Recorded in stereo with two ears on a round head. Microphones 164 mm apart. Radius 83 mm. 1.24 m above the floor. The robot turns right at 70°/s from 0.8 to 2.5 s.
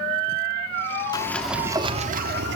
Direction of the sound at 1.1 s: 155° left.